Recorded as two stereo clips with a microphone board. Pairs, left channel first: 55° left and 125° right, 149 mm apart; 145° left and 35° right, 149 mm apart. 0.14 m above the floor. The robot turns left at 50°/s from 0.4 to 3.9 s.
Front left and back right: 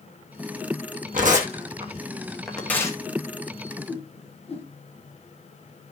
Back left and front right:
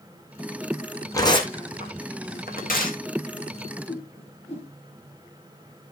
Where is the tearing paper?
145° right, 2.5 m; by 3.0 s 120° left, 2.5 m.